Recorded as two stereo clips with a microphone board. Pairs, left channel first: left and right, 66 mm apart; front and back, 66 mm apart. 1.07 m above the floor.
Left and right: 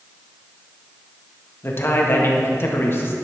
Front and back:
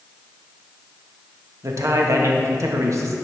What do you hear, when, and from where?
1.6 s a man speaking: 140° left, 1.0 m